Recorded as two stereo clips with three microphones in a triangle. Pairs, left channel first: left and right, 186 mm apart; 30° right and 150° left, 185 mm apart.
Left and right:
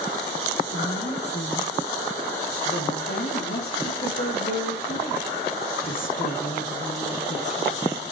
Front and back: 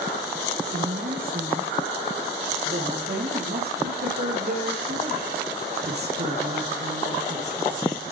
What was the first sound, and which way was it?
A woman speaking, 115° left.